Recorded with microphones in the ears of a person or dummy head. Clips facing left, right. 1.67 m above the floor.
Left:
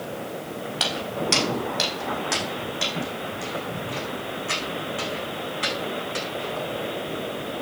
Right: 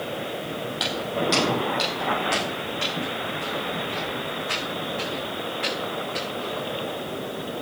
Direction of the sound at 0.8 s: 35° left (ahead or behind).